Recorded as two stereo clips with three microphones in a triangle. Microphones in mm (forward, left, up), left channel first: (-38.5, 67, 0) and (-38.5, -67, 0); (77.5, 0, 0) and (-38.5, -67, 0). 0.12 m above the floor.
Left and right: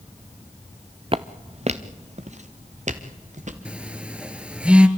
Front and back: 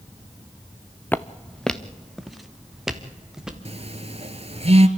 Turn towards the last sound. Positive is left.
turn(degrees=-170)